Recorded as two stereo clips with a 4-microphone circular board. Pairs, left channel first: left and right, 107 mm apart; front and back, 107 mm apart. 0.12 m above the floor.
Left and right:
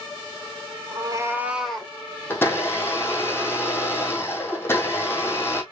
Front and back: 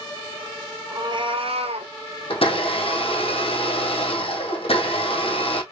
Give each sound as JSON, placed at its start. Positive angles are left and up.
{"t": 0.9, "sound": "a cat meowing", "azimuth_deg": -130, "distance_m": 0.9}
{"t": 2.3, "sound": "a blender", "azimuth_deg": 20, "distance_m": 1.8}